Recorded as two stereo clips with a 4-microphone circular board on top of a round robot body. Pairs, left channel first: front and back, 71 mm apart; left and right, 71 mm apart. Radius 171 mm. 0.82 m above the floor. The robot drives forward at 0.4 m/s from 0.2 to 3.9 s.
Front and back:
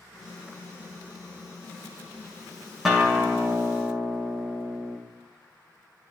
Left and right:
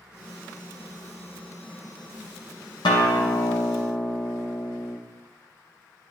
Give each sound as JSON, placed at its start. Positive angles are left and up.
{"t": 2.9, "sound": "a guitar", "azimuth_deg": 95, "distance_m": 0.6}